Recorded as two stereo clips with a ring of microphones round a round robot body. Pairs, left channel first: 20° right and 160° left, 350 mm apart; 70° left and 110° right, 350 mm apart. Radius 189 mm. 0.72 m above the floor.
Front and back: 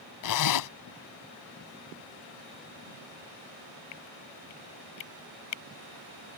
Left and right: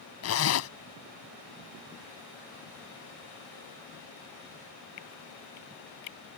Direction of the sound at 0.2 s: 15° left.